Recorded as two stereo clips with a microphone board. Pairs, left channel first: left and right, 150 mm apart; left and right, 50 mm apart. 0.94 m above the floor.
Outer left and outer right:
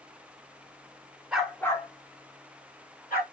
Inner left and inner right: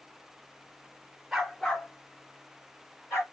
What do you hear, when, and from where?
1.3 s a dog barking: 5° right (ahead or behind), 0.9 m; by 3.2 s 65° left (ahead or behind), 1.8 m